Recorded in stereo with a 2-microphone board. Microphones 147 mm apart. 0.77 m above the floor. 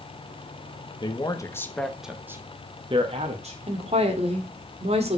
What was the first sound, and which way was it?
A man speaking, 35° left (ahead or behind).